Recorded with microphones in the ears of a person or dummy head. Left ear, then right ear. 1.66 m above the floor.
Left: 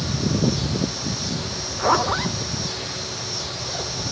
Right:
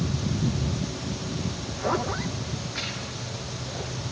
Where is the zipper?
25° left (ahead or behind).